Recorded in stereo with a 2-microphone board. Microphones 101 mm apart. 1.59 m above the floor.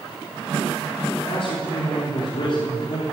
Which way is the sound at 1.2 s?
65° left (ahead or behind).